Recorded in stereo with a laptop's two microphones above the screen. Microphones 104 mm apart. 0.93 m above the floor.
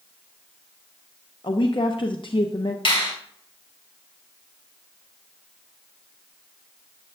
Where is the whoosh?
I don't hear a whoosh.